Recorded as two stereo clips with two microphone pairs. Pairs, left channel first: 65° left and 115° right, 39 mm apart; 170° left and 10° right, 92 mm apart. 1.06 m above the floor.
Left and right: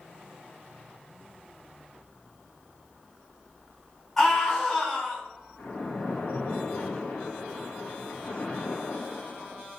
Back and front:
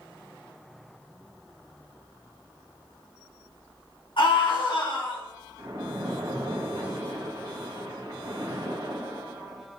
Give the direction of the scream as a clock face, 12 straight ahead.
7 o'clock.